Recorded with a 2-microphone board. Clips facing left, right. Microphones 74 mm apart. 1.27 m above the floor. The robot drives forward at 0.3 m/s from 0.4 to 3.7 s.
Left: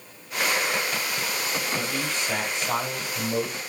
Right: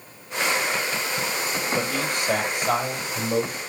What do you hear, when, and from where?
1.8 s a man speaking: 60° right (ahead or behind), 5.5 m; by 3.6 s 55° right (ahead or behind), 5.5 m